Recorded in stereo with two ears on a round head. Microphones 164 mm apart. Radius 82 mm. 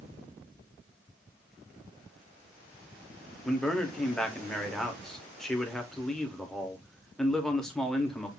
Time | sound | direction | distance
3.5 | a man speaking | 5° left (ahead or behind) | 1.0 m